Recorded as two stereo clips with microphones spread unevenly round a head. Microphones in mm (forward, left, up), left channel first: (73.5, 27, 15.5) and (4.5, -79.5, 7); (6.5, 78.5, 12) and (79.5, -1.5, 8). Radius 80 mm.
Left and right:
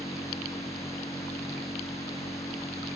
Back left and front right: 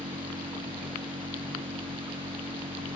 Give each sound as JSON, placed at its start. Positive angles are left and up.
{"t": 0.0, "sound": "a machine running", "azimuth_deg": -10}